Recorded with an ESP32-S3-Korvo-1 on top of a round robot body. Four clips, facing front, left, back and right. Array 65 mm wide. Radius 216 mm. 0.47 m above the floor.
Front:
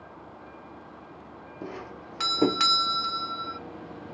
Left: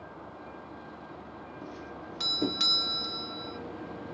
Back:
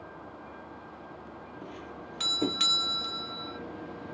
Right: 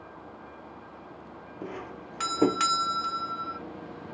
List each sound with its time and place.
1.6 s a doorbell: 45° right